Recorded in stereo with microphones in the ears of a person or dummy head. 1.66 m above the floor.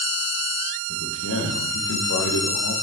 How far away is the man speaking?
About 1.9 m.